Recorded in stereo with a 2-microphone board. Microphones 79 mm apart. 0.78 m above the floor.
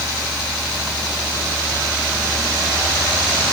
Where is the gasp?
No gasp in this recording.